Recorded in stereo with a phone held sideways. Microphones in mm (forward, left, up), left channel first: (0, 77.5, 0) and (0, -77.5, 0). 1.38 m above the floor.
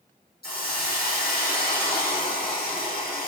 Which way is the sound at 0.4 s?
80° left.